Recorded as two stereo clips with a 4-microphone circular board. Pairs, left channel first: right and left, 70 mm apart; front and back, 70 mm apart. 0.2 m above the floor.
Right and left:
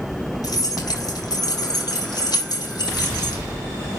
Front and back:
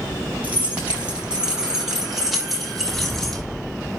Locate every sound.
0.4 s keys jangling: 110° right, 3.5 m; by 3.4 s 85° right, 4 m